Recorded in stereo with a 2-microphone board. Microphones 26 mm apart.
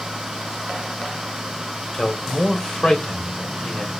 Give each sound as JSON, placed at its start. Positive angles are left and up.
{"t": 1.9, "sound": "a man speaking", "side_deg": 40, "distance_m": 1.2}